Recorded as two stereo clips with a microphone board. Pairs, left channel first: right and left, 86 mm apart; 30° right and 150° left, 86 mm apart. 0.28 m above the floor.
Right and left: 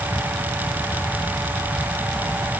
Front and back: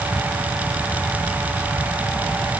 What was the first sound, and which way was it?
Only background noise.